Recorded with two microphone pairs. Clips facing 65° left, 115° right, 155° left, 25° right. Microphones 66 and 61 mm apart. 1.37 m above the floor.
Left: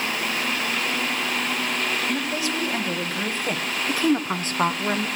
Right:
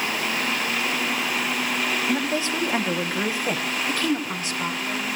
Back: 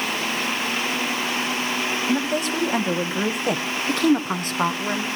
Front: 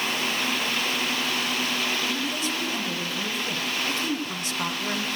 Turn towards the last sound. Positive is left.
turn(degrees=80)